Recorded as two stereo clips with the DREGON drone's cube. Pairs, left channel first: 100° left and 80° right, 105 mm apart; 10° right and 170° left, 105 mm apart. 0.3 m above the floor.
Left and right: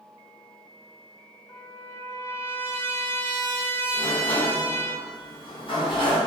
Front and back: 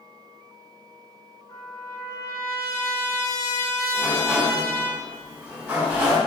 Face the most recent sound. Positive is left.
turn(degrees=100)